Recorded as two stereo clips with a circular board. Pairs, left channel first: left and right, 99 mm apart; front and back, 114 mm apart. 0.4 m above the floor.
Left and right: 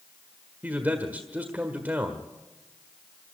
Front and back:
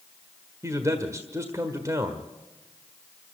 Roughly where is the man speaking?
Behind right.